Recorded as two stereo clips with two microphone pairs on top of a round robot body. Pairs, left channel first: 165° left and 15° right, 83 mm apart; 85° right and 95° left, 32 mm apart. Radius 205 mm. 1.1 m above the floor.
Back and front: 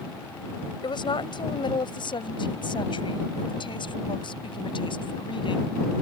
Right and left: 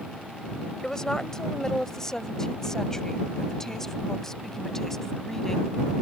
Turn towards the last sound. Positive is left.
turn(degrees=-170)